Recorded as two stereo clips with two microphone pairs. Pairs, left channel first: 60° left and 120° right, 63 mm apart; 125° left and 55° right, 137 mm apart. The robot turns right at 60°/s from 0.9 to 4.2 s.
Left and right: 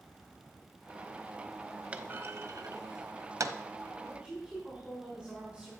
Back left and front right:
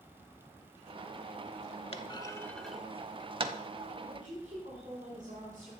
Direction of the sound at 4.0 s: 60° right.